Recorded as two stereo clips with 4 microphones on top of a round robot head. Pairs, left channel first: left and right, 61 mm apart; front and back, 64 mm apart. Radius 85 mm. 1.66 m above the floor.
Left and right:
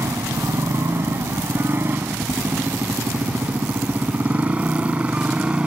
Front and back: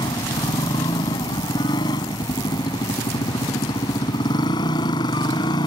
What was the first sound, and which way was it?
A motorcycle, 35° right.